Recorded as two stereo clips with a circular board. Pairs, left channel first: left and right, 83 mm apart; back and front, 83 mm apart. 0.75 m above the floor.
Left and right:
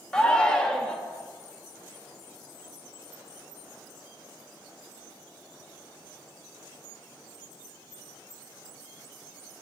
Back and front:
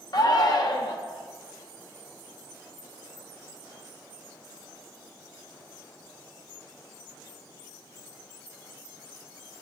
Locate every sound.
0.1 s a shout: 165° left, 1.0 m